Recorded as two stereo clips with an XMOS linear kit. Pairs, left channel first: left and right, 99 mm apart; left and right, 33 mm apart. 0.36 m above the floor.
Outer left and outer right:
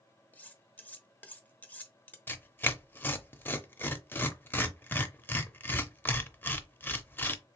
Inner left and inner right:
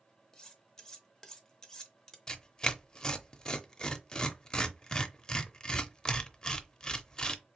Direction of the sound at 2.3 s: 20° left (ahead or behind).